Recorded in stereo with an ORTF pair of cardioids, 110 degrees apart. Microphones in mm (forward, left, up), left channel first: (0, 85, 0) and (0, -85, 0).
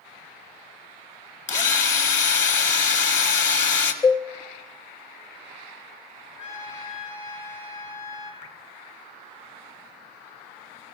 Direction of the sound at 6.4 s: 50° left.